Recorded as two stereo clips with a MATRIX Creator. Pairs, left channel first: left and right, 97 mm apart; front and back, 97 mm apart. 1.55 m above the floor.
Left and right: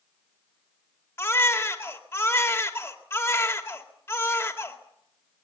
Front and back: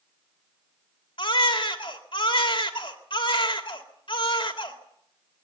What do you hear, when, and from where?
1.2 s a baby crying: 25° left, 2 m